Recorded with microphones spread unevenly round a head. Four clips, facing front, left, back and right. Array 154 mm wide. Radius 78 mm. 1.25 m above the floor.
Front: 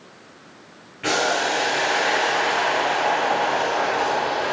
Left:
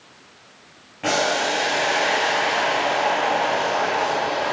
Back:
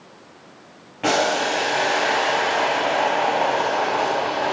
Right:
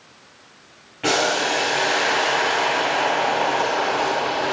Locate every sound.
1.0 s boiling: 175° left, 3.5 m